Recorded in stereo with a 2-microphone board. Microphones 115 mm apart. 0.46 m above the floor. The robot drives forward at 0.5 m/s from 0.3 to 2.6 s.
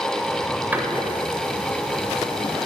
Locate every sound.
0.7 s a door slam: 15° right (ahead or behind), 1.2 m; by 2.7 s 10° right (ahead or behind), 2 m